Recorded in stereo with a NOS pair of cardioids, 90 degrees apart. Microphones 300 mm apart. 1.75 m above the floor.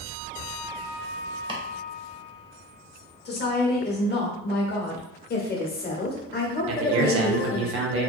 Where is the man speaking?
50° right, 0.8 m.